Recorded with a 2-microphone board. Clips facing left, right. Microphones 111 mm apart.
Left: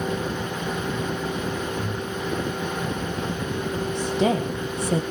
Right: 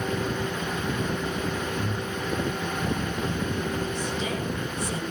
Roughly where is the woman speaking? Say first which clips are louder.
Left 7 dB; left.